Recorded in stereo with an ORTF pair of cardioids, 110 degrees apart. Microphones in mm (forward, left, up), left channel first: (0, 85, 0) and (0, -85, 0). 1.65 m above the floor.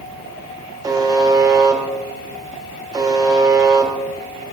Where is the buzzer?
20° right, 0.8 m.